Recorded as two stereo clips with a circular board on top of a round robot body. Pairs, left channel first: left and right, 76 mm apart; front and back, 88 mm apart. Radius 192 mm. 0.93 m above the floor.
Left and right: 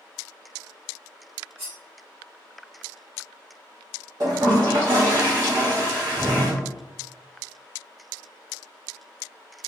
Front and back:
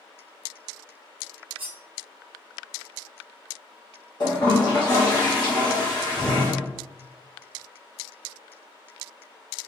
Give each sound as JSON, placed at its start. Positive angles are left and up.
{"t": 1.6, "sound": "cutlery clinking", "azimuth_deg": -160, "distance_m": 0.7}
{"t": 4.2, "sound": "a toilet flushing", "azimuth_deg": -40, "distance_m": 1.2}